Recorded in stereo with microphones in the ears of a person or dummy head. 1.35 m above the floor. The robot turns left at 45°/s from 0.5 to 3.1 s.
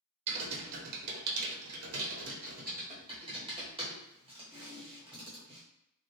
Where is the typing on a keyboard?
35° right (ahead or behind), 0.9 m; by 5.6 s 25° right (ahead or behind), 0.9 m.